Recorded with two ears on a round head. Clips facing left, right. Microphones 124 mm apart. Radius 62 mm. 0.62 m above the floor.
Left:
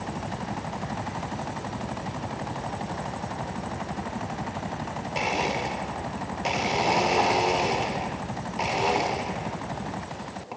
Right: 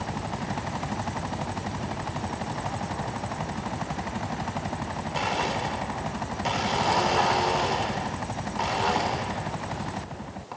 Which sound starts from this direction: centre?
A blender, at 5.2 s.